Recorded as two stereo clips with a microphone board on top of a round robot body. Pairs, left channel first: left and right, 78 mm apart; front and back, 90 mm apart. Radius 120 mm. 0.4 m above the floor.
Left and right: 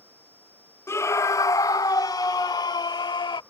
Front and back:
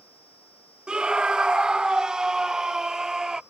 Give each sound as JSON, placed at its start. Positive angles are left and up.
{"t": 0.9, "sound": "a scream", "azimuth_deg": 105}